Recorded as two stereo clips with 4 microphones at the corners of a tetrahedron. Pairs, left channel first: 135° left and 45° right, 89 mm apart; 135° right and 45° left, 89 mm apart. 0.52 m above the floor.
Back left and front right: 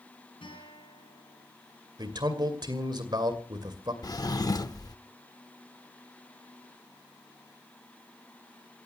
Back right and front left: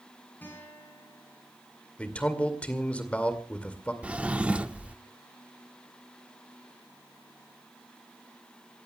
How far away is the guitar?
About 7 m.